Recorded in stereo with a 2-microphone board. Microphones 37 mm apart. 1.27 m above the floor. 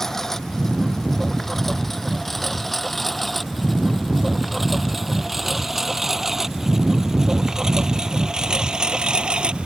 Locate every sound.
0.0 s a lawn mower: 15° left (ahead or behind); by 9.7 s 25° right (ahead or behind)